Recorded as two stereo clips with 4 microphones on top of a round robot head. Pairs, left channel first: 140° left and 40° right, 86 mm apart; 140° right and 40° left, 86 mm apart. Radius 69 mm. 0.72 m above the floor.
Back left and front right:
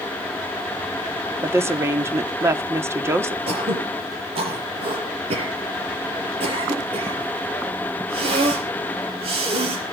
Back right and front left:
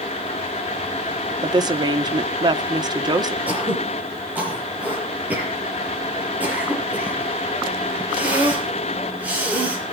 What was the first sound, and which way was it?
A woman speaking, 15° left.